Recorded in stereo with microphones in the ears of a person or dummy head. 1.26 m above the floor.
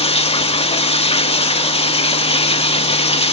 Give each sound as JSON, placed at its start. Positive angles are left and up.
{"t": 0.0, "sound": "running water", "side_deg": 25, "distance_m": 1.2}